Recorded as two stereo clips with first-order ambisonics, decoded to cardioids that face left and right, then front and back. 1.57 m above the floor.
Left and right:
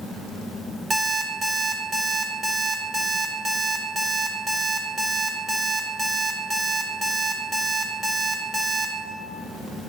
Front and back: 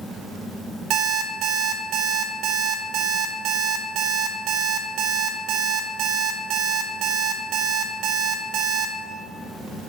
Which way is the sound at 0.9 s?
155° right.